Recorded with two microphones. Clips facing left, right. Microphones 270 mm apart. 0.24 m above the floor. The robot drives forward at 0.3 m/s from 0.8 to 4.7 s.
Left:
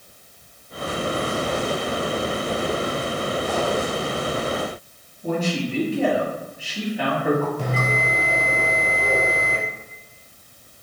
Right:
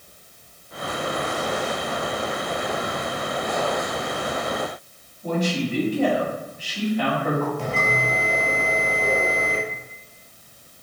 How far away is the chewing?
I don't hear chewing.